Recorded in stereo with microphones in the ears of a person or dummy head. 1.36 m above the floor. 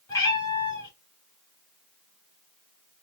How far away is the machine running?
No machine running in this recording.